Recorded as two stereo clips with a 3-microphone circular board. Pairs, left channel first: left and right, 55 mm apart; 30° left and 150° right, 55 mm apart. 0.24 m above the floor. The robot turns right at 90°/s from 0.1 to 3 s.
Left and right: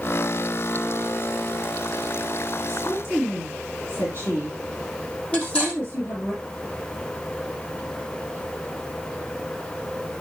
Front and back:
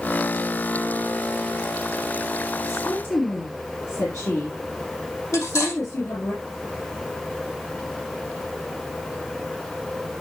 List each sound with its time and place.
2.7 s a woman speaking: 10° left, 4.5 m; by 6.3 s 45° left, 4.5 m
5.3 s cutlery clinking: 25° left, 7.5 m